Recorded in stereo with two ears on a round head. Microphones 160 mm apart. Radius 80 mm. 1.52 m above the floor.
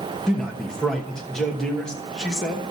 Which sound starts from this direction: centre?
A man speaking, at 0.3 s.